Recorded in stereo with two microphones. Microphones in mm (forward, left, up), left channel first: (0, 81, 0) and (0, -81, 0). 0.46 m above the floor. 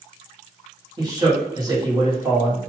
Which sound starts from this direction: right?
A man speaking, at 1.0 s.